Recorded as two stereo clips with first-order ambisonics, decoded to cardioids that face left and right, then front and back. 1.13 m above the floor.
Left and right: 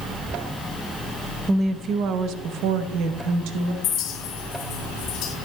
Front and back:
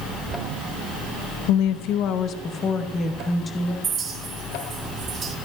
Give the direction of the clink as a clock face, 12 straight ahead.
8 o'clock.